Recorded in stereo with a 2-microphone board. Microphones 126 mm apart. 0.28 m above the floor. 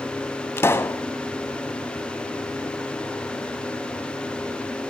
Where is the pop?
20° left (ahead or behind), 0.7 m.